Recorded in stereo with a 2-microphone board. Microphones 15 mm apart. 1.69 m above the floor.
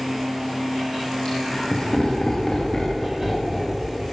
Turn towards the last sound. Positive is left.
turn(degrees=10)  # may be behind; listen again after turning